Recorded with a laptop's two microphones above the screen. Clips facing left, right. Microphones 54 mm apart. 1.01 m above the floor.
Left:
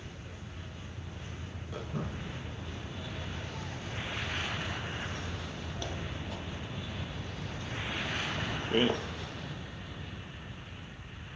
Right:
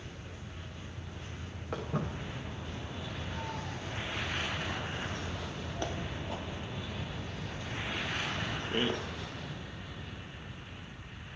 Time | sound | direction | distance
1.7 | footsteps | 55° right (ahead or behind) | 6 m